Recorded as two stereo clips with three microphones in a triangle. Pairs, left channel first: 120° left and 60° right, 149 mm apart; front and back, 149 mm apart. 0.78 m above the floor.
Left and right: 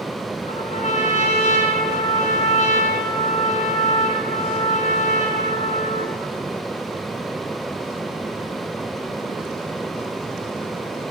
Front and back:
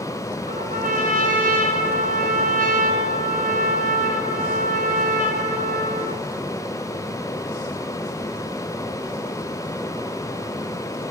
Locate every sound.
0.5 s a trumpet: 160° left, 3.5 m